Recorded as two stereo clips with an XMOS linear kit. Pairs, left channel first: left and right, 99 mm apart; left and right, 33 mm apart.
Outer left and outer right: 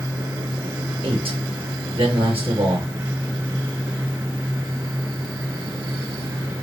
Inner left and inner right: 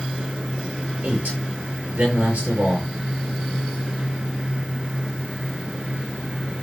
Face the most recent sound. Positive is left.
turn(degrees=-75)  # may be behind; listen again after turning